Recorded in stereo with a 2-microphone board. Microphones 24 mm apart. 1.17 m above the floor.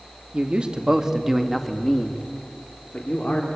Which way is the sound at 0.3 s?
50° right (ahead or behind).